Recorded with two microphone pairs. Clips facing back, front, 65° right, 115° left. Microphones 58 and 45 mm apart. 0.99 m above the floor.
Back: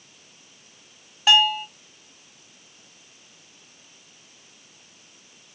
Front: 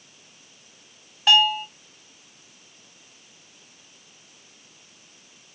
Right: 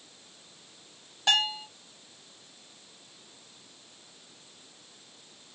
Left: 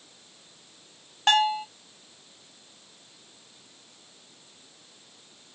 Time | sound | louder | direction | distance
1.3 | a bell | even, left 5 dB | 90° left | 1.3 m